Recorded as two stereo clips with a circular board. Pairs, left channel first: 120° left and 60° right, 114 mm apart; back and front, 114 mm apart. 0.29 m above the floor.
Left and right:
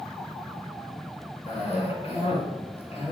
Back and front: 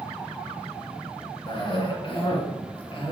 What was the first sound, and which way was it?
A cough, 145° left.